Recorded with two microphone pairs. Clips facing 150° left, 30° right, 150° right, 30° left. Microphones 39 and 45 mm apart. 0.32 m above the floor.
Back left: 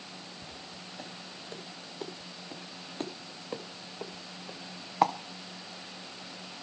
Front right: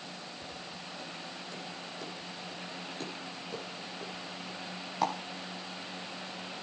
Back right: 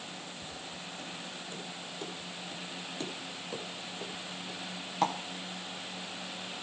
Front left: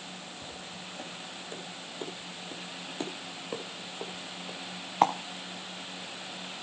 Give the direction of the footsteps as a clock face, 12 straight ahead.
9 o'clock.